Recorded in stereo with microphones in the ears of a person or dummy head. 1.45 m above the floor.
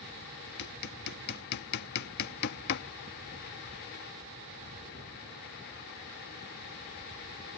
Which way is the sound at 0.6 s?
50° left (ahead or behind).